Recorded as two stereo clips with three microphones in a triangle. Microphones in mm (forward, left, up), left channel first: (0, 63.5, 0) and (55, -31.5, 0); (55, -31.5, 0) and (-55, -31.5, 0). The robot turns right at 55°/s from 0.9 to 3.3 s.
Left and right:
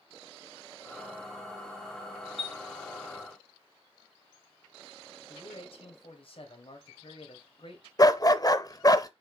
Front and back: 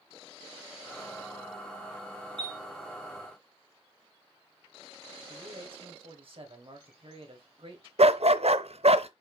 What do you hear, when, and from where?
2.4 s a chime: 140° left, 2.5 m; by 2.6 s 155° left, 2.5 m
5.3 s a man speaking: 150° left, 2.5 m
8.0 s a dog barking: 170° left, 0.5 m